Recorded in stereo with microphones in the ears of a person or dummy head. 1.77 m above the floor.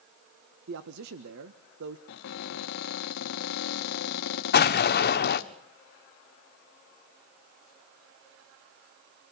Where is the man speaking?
65° right (ahead or behind), 1.4 m.